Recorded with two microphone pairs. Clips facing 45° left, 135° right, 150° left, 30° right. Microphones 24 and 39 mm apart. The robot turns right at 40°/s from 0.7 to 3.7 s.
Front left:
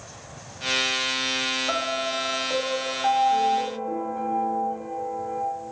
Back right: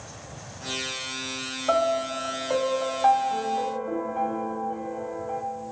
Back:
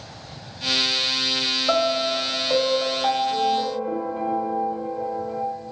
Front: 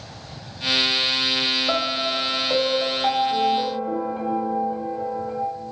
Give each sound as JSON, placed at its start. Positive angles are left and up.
{"t": 1.7, "sound": "a piano", "azimuth_deg": -170, "distance_m": 1.3}